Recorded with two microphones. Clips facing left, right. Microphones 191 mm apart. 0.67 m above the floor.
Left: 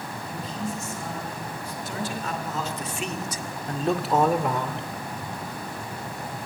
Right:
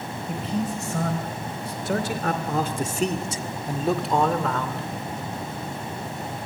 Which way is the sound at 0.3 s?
75° right (ahead or behind).